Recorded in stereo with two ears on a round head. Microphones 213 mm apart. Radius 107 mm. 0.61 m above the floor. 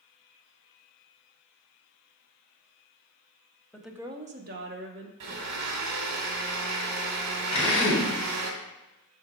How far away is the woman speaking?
About 0.8 m.